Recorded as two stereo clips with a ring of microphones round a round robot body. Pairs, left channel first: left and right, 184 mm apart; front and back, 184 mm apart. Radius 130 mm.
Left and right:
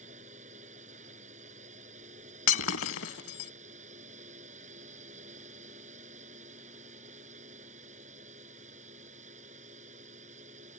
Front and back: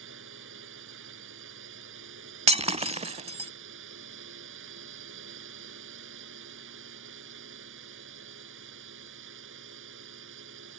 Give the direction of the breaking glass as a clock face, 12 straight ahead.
8 o'clock.